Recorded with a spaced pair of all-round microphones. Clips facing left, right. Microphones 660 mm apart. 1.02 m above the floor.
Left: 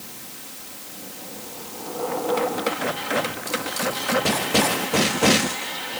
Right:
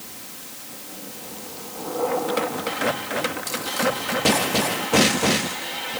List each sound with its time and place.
Only background noise.